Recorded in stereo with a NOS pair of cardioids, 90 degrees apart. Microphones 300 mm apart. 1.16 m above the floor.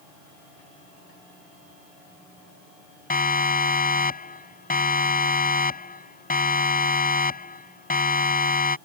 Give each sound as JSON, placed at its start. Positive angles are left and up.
{"t": 3.1, "sound": "a siren", "azimuth_deg": 30}